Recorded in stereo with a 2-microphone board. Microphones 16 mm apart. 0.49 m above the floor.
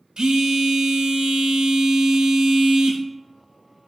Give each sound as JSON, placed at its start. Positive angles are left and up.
{"t": 0.2, "sound": "a phone buzzing", "side_deg": -70, "distance_m": 0.6}